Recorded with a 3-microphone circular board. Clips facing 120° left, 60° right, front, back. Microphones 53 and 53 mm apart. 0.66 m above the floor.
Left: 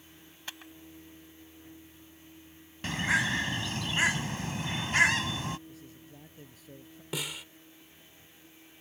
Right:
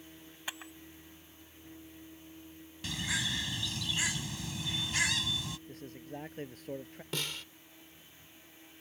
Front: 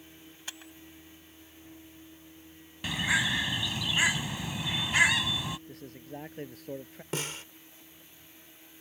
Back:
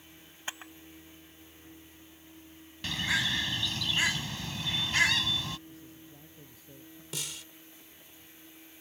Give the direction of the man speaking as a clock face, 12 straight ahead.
1 o'clock.